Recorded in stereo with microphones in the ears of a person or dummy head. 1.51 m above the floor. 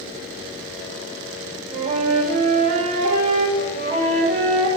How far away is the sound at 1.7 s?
About 2.5 m.